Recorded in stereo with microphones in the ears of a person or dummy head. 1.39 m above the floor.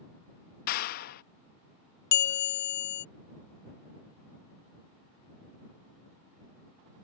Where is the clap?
50° left (ahead or behind).